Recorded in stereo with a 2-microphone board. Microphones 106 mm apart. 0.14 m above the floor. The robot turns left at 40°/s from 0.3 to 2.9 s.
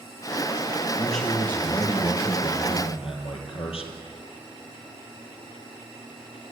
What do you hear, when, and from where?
1.0 s a man speaking: straight behind, 4.5 m; by 3.9 s 105° left, 4.5 m